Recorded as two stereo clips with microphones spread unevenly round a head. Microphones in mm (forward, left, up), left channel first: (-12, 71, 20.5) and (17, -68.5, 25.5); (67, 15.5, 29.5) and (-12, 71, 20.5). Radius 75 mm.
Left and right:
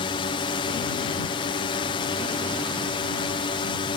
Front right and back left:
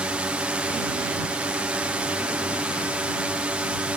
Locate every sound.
0.0 s a drone: 80° left